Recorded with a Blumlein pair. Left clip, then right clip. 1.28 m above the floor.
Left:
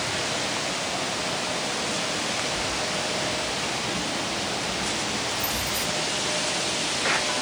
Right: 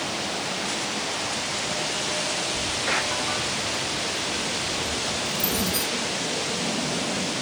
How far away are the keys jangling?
About 3.5 m.